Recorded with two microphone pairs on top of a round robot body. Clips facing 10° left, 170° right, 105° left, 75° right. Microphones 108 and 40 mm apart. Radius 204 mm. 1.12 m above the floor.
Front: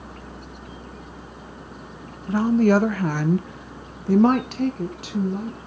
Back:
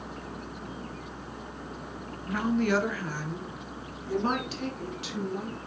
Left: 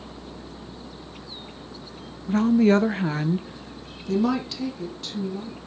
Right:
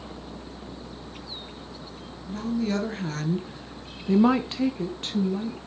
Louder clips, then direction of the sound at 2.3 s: Front 9 dB, left 9 dB; 70° left.